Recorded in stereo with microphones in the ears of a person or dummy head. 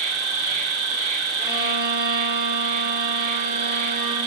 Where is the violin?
10° right (ahead or behind), 2.5 m.